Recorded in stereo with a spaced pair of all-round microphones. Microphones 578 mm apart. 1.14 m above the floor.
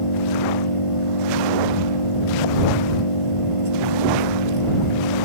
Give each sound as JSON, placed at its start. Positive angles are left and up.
{"t": 0.0, "sound": "an engine running", "side_deg": 60}